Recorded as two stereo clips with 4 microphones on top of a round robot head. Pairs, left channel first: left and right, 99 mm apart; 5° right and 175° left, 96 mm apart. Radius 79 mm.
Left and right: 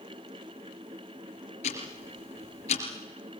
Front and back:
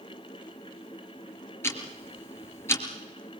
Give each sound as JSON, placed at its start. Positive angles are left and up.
{"t": 1.6, "sound": "ticking", "azimuth_deg": 60, "distance_m": 3.5}